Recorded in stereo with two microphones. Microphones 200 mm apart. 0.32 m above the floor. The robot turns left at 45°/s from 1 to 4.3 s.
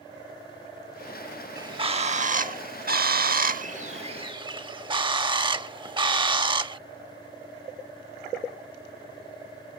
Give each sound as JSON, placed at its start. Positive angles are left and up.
{"t": 1.6, "sound": "a bird", "azimuth_deg": -25}